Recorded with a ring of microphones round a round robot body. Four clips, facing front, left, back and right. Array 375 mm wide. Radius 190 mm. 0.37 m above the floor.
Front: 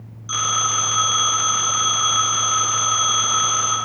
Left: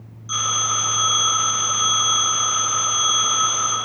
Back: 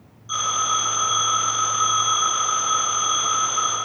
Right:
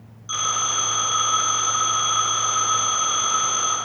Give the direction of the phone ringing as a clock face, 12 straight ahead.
12 o'clock.